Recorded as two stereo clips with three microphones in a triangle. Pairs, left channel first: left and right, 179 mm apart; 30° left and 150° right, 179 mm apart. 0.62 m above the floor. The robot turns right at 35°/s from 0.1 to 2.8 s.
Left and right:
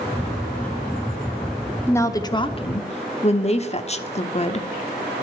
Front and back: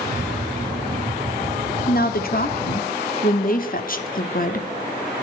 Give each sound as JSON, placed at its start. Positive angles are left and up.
{"t": 1.9, "sound": "a woman speaking", "azimuth_deg": 15, "distance_m": 1.0}